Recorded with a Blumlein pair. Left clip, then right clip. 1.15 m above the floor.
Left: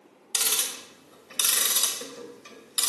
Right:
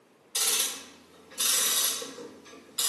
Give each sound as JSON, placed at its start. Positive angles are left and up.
{"t": 0.3, "sound": "ticking", "azimuth_deg": 45, "distance_m": 1.1}